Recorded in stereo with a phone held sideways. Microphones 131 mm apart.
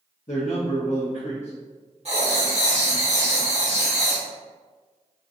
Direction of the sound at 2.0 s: 55° right (ahead or behind).